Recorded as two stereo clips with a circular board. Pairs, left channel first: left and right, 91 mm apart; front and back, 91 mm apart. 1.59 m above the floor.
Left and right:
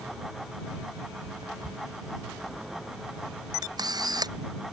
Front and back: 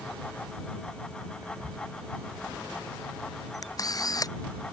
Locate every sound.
1.4 s whispering: 125° right
3.6 s a camera shutter: 45° right